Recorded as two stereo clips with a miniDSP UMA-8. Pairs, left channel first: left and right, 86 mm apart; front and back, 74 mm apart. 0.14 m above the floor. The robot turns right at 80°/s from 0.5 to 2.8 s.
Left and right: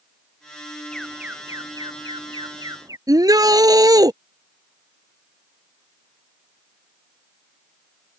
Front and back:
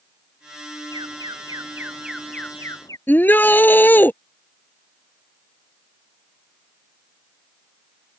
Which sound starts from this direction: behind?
An alarm, at 0.9 s.